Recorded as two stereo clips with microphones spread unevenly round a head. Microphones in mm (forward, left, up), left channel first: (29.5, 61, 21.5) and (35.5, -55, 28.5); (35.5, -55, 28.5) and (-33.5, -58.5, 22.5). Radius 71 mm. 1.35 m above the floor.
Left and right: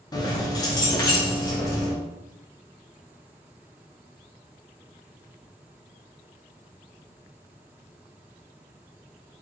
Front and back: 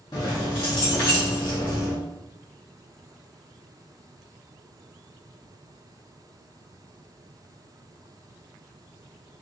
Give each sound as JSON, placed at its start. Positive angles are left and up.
{"t": 0.1, "sound": "keys jangling", "azimuth_deg": 40, "distance_m": 0.6}